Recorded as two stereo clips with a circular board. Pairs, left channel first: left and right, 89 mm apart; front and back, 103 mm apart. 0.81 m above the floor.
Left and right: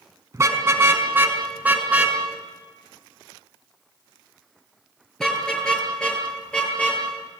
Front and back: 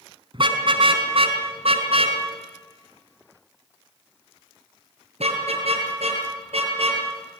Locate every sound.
0.3 s a car horn: 145° right, 3.5 m; by 7.0 s 165° left, 8.5 m